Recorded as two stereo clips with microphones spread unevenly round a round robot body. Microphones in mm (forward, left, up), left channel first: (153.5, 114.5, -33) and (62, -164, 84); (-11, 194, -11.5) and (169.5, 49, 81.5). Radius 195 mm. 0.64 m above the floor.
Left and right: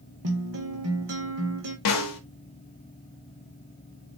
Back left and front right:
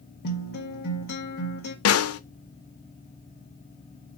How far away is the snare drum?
About 0.7 m.